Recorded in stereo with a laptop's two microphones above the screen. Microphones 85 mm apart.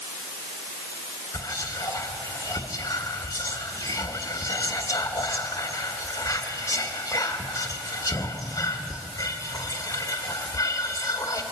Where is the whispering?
40° left (ahead or behind), 1.0 m.